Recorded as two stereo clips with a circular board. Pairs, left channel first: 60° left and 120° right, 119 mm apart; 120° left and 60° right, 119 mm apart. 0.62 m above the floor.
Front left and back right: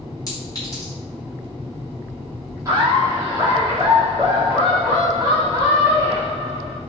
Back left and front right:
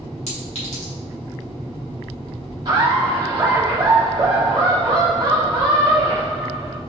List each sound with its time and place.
0.3 s a clink: 120° left, 2 m
2.6 s laughter: 75° right, 1.5 m